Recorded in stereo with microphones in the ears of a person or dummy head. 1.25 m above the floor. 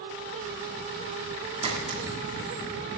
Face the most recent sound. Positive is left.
turn(degrees=-25)  # may be behind; listen again after turning